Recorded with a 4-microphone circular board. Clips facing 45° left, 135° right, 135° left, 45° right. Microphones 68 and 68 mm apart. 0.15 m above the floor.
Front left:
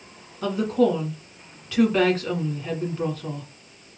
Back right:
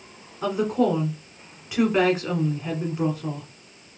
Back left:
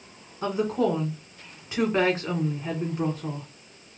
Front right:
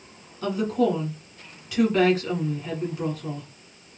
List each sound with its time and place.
0.4 s a woman speaking: 160° left, 1.8 m